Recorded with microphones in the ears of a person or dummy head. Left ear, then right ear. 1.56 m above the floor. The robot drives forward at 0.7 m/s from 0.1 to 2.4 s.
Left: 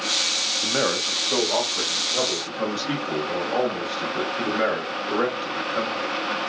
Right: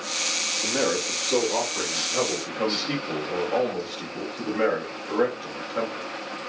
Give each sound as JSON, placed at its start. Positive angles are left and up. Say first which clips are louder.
{"t": 0.6, "sound": "a man speaking", "louder": "left 2 dB", "side_deg": 60, "distance_m": 0.8}